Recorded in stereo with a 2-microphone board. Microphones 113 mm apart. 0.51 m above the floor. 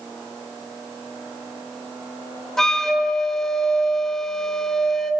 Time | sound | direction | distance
2.6 | a flute | 5° left (ahead or behind) | 0.7 m